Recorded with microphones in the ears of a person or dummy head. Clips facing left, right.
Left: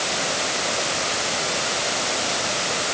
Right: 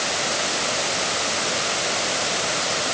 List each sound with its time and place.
Only background noise.